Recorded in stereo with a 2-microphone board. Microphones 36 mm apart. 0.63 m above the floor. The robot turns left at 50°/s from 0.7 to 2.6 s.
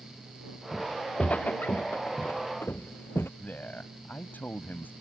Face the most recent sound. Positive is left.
turn(degrees=60)  # may be behind; listen again after turning